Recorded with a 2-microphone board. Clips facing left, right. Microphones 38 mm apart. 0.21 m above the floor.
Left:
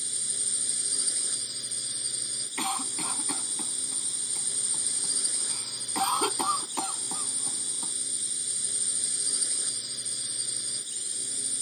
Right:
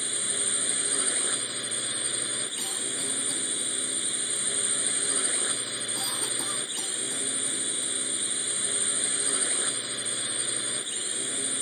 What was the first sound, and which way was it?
A drone, 40° right (ahead or behind).